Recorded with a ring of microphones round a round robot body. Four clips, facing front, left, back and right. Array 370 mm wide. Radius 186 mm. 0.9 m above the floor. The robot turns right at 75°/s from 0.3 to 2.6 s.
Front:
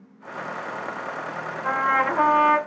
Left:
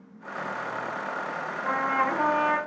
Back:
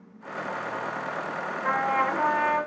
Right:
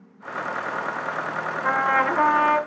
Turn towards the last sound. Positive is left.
turn(degrees=-10)